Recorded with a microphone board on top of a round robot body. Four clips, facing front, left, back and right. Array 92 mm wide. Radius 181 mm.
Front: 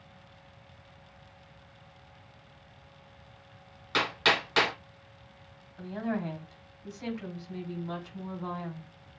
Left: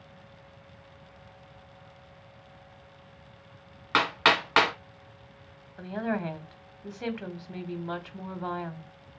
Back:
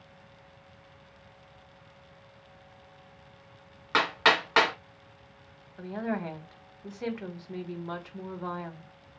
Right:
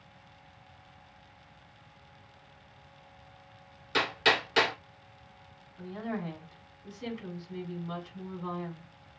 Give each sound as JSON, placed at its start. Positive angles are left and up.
{"t": 3.9, "sound": "hammering", "azimuth_deg": 125, "distance_m": 2.0}
{"t": 5.8, "sound": "a woman speaking", "azimuth_deg": 120, "distance_m": 1.5}